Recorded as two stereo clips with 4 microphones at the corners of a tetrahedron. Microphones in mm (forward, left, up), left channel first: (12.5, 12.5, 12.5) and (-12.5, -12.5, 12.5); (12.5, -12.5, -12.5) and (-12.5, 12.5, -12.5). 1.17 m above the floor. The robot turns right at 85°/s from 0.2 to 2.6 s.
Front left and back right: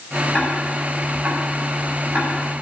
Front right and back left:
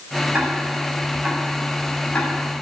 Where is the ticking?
95° left, 6.5 m; by 2.4 s 90° right, 6.5 m.